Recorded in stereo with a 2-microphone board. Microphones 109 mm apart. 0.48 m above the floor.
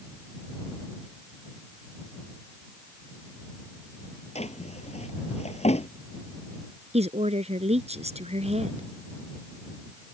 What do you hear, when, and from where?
4.3 s a drawer: 70° left (ahead or behind)
6.9 s a woman speaking: 70° right (ahead or behind)